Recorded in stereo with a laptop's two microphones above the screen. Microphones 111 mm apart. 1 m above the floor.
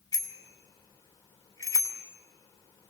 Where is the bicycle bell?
35° left (ahead or behind), 2.5 m.